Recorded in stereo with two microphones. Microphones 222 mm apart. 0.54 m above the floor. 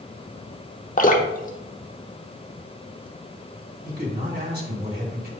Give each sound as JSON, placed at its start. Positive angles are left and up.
{"t": 1.0, "sound": "dripping", "side_deg": 35, "distance_m": 0.9}
{"t": 3.9, "sound": "a man speaking", "side_deg": -45, "distance_m": 3.0}